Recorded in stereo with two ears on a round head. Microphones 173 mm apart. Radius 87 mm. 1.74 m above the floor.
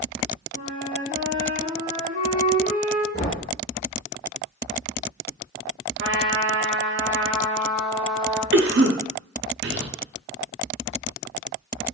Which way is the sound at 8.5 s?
60° right (ahead or behind).